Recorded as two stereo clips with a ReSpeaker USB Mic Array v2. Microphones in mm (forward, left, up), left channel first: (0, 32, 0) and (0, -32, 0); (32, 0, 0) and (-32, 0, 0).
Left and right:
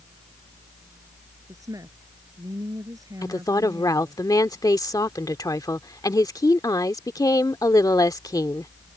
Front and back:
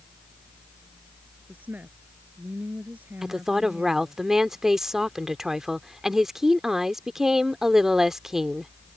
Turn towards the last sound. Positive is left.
turn(degrees=95)